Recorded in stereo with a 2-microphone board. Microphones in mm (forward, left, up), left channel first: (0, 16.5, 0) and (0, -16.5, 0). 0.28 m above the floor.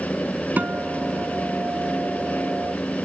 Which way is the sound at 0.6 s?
65° right (ahead or behind).